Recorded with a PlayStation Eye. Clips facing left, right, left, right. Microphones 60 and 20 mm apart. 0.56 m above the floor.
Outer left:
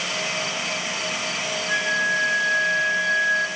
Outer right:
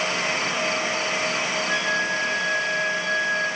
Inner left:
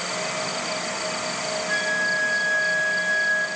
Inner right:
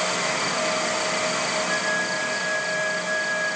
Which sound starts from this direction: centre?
A flute, at 1.7 s.